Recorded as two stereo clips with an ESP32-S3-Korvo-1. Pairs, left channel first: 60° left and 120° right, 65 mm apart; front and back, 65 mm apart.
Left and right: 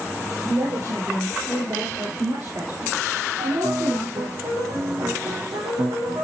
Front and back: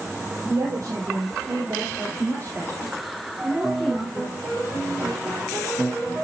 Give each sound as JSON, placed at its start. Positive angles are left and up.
{"t": 0.4, "sound": "a woman speaking", "azimuth_deg": -150, "distance_m": 7.0}
{"t": 3.4, "sound": "a piano", "azimuth_deg": -125, "distance_m": 9.5}